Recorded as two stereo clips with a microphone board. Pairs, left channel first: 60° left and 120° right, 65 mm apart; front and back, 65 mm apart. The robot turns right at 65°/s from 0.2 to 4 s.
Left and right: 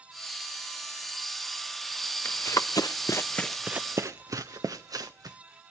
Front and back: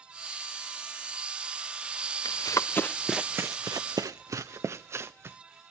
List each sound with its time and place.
2.2 s running footsteps: 5° left, 0.9 m; by 5.4 s 130° right, 1.4 m